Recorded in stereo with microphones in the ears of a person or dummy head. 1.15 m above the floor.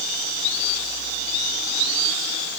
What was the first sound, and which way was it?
Only background noise.